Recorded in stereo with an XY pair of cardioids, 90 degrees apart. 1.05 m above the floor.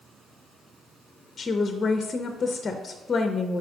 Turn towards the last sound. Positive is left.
turn(degrees=45)